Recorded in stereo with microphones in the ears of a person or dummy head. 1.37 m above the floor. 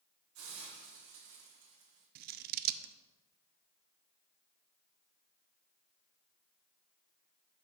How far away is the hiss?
About 3 m.